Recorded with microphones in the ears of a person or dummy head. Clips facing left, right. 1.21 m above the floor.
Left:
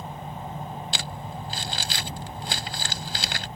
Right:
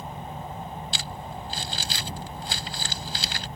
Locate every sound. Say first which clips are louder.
0.9 s crumpling: left 1 dB; 55° left (ahead or behind)